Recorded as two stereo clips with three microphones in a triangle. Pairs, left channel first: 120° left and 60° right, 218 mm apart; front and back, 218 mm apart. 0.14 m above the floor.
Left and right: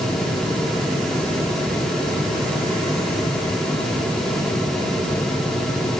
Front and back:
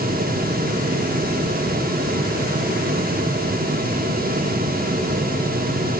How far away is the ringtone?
No ringtone in this recording.